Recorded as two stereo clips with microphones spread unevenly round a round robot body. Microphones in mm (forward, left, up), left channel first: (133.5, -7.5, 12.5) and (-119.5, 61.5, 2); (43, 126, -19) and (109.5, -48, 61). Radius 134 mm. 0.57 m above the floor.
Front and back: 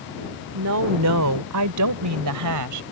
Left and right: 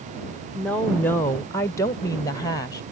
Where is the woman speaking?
Straight behind; by 2.8 s 175° left.